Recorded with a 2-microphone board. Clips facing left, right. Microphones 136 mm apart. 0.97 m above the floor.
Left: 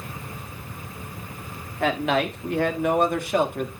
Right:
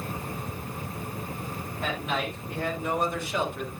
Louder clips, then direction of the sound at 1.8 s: Left 8 dB; 75° left (ahead or behind).